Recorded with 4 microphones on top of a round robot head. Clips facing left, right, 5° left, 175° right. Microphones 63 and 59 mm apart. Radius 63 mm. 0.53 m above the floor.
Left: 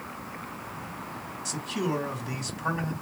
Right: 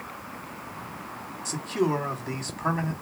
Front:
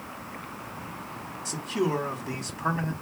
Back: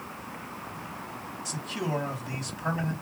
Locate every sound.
1.4 s a man speaking: 45° right, 2 m